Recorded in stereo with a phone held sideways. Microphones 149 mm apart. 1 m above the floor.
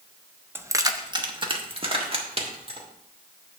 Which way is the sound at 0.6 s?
15° right (ahead or behind).